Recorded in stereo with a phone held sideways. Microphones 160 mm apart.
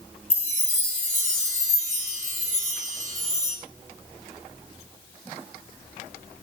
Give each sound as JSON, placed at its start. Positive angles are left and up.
{"t": 0.3, "sound": "a chime", "side_deg": 50, "distance_m": 3.5}